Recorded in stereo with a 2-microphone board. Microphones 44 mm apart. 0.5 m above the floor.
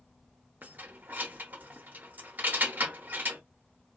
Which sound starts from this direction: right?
Keys jangling, at 0.6 s.